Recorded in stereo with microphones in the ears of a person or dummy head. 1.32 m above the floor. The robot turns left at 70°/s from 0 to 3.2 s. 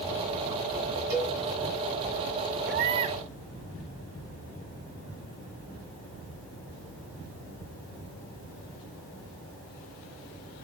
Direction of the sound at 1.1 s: 65° right (ahead or behind).